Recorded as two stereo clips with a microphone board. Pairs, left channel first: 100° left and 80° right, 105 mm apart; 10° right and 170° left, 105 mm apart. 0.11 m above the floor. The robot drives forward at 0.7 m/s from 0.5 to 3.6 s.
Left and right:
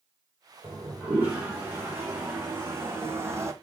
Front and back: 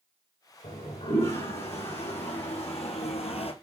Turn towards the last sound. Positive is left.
turn(degrees=-20)